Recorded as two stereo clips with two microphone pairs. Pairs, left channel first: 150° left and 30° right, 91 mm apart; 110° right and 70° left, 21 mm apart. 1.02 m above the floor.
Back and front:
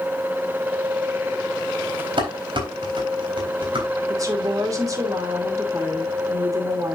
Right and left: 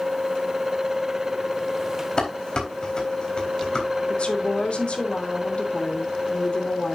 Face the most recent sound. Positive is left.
turn(degrees=-80)